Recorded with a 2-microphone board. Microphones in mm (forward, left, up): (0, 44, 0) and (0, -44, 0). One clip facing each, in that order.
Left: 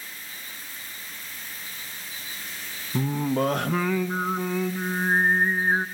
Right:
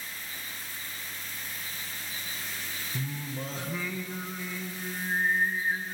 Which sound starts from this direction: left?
Singing, at 2.9 s.